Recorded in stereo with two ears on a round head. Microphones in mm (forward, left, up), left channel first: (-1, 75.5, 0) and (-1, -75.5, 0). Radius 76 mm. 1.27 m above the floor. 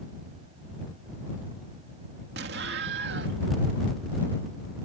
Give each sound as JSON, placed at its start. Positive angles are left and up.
{"t": 2.4, "sound": "an explosion", "side_deg": -70}